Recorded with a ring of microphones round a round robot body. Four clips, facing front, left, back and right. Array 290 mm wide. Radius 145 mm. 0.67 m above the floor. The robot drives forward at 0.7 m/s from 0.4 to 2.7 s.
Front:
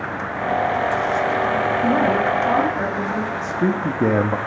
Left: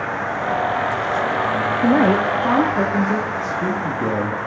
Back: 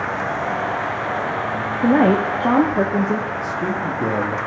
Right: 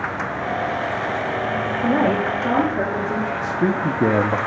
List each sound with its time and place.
1.8 s a woman speaking: 145° left, 0.5 m; by 3.3 s 170° left, 1.0 m
3.4 s a man speaking: 40° right, 0.6 m